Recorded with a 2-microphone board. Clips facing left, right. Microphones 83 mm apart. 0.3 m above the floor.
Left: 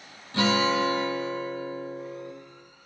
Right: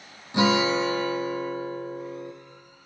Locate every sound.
0.3 s a guitar: 15° right (ahead or behind), 1.8 m